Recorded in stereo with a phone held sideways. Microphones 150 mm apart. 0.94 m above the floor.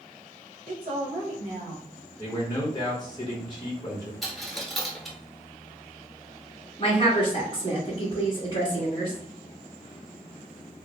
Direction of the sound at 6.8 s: 30° left (ahead or behind).